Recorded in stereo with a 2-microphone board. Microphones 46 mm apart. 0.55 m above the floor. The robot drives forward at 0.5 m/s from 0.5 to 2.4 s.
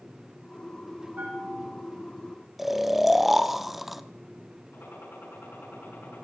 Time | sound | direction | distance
1.2 | a bell | 45° right (ahead or behind) | 7.5 m
2.6 | snoring | centre (ahead or behind) | 0.6 m
4.7 | a gunshot | 55° left (ahead or behind) | 6 m